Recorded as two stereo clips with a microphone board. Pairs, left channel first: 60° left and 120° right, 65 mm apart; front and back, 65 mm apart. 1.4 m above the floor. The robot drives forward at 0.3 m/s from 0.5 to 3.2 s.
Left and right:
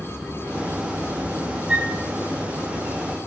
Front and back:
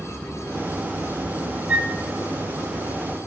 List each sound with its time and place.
1.7 s a flute: 165° right, 1.0 m